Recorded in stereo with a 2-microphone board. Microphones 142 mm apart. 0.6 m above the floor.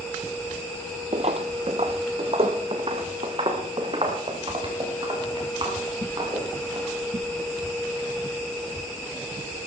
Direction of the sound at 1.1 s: 50° right (ahead or behind).